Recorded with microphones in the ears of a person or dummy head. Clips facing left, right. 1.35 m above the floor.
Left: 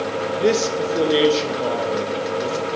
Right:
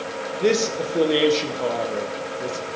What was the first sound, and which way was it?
A man speaking, centre (ahead or behind).